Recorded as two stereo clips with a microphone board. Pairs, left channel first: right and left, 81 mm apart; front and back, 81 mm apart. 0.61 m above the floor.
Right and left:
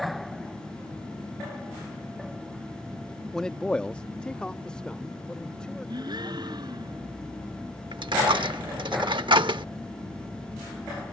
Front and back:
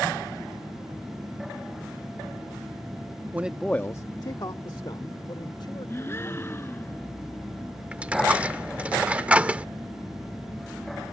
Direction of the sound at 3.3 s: 165° right.